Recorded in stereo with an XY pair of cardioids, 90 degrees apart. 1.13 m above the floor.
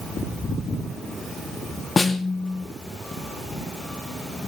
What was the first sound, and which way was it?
A snare drum, 25° left.